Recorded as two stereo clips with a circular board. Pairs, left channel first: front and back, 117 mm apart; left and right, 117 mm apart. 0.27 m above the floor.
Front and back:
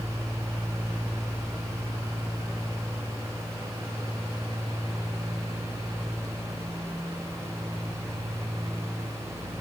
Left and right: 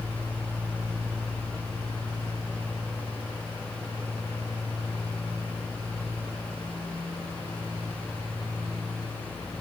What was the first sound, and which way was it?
Only background noise.